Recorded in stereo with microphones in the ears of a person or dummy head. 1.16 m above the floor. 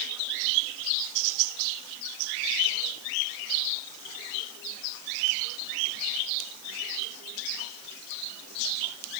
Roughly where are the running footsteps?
No running footsteps in this recording.